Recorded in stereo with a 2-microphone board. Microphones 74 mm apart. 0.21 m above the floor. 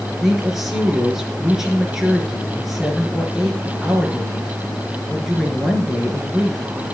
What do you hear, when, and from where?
0.2 s a woman speaking: 5° right (ahead or behind), 4 m